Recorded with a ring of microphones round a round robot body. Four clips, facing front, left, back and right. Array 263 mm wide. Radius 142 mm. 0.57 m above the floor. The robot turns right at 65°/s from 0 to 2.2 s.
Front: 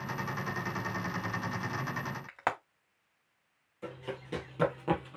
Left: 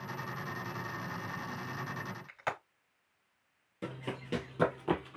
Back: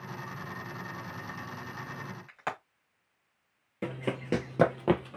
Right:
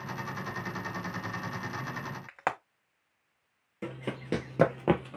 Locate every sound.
2.3 s frying: 65° right, 2.5 m
3.8 s running footsteps: 165° right, 1.0 m; by 5.2 s 110° right, 1.2 m